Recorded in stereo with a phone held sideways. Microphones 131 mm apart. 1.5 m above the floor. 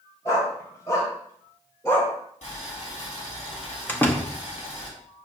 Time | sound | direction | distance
0.2 | a dog barking | 25° left (ahead or behind) | 2.5 m
2.4 | boiling | 55° left (ahead or behind) | 3 m
3.9 | a door slam | 15° left (ahead or behind) | 0.9 m